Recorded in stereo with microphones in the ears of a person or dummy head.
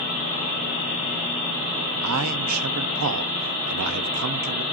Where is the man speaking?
75° right (ahead or behind), 0.6 m.